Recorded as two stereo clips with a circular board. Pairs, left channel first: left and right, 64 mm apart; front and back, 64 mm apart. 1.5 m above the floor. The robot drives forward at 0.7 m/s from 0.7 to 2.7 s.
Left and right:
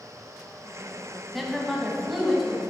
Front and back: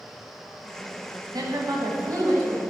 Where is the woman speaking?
175° right, 1.3 m; by 2.6 s straight behind, 2 m.